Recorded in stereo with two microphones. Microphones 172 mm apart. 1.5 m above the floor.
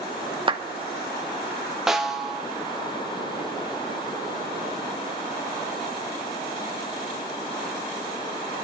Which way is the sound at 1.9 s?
5° right (ahead or behind).